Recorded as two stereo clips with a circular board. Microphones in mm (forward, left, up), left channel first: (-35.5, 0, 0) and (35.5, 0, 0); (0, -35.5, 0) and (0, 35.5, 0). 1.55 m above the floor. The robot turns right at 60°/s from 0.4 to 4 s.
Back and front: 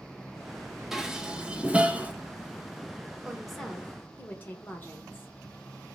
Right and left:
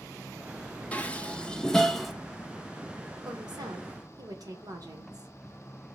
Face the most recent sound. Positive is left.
turn(degrees=115)